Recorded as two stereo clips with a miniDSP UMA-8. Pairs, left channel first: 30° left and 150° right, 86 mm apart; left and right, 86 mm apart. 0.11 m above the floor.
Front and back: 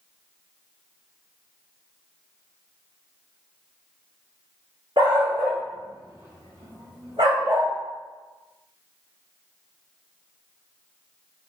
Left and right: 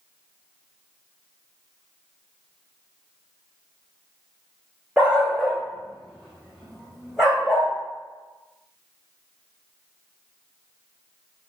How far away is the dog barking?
About 2.5 m.